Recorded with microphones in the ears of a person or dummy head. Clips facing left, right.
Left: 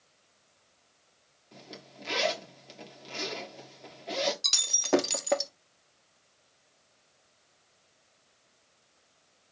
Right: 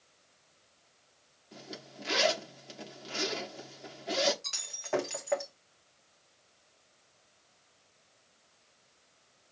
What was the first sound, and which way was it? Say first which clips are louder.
A zipper: right 2 dB; 5° right (ahead or behind).